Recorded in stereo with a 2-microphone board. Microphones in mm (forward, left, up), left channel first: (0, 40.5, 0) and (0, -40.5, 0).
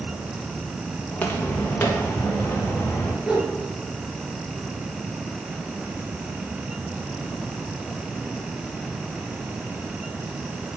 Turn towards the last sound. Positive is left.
turn(degrees=-10)  # may be behind; listen again after turning